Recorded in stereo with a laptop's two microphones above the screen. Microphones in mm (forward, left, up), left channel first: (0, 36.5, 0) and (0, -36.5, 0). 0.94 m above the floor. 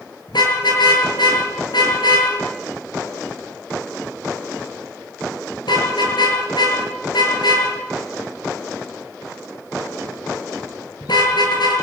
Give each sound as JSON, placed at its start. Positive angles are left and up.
{"t": 0.3, "sound": "a car horn", "side_deg": 80, "distance_m": 7.5}